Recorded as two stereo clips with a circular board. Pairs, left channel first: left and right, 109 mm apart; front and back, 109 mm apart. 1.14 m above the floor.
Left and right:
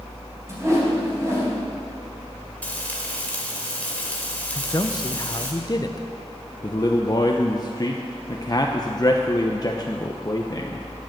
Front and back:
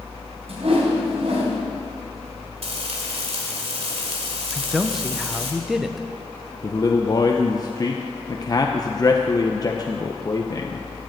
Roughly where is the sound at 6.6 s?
Ahead left.